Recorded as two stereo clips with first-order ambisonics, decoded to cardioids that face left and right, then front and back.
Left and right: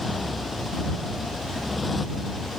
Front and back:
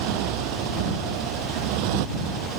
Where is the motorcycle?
170° left.